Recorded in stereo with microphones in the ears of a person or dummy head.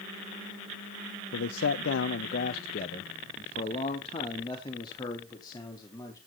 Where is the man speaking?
80° left, 0.7 m; by 6.2 s 20° left (ahead or behind), 2.5 m.